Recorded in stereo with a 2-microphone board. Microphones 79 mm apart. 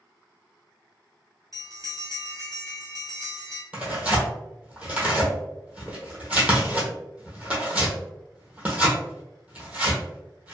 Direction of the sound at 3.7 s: 15° right (ahead or behind).